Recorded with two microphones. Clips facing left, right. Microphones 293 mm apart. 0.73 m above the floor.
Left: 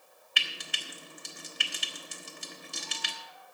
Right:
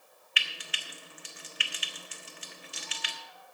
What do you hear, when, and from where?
0.4 s frying: 50° left (ahead or behind), 1.2 m